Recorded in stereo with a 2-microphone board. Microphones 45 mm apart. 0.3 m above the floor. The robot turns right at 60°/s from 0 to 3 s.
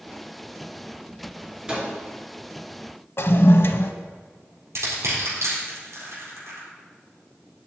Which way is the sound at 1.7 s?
15° right (ahead or behind).